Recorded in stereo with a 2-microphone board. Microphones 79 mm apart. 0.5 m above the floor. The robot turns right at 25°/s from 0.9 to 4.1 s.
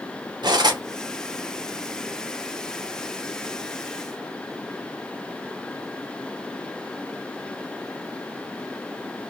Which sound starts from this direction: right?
Cutlery clinking, at 0.4 s.